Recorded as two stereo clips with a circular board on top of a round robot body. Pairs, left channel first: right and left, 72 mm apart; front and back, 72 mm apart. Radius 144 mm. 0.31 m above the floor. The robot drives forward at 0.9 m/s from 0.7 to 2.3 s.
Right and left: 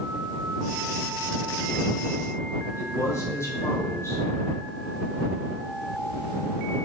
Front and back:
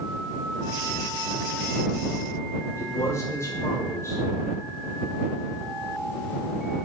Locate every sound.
2.8 s a man speaking: 45° right, 2.5 m